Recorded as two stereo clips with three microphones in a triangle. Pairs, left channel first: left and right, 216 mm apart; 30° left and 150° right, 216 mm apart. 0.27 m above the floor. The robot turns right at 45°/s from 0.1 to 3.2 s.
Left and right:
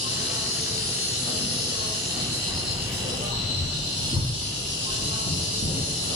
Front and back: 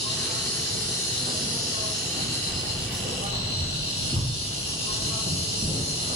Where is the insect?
65° left, 4.5 m; by 6.2 s 155° right, 4.5 m.